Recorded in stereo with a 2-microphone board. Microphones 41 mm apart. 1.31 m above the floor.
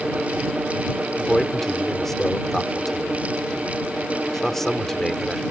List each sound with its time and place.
1.2 s a man speaking: 5° left (ahead or behind)